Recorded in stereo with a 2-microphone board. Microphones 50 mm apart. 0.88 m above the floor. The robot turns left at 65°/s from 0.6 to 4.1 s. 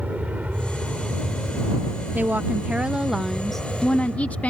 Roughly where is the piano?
I don't hear a piano.